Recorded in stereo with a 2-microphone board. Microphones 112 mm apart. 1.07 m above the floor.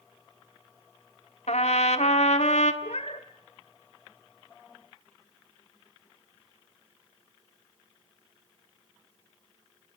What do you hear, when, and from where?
1.5 s a trumpet: 75° left (ahead or behind), 1.6 m
2.8 s a cat meowing: 70° left (ahead or behind), 1.6 m